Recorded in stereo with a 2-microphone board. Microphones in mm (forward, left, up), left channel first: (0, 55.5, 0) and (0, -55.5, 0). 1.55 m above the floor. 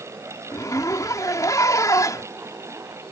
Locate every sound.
0.5 s a zipper: 30° left (ahead or behind)